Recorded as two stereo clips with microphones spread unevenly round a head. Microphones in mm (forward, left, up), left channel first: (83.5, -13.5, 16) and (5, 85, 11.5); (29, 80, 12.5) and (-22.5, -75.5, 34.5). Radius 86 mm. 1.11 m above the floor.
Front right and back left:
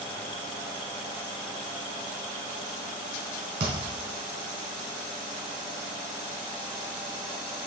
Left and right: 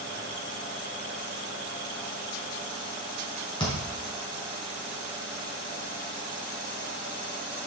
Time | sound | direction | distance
3.6 | a thud | 135° left | 3.5 m